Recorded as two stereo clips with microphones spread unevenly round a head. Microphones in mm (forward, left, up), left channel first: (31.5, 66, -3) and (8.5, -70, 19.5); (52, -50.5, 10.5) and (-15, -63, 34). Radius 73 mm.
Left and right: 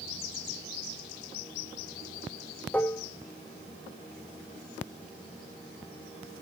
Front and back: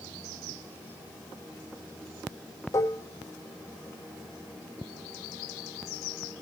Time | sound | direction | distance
2.7 | dishes clattering | 10° right | 0.8 m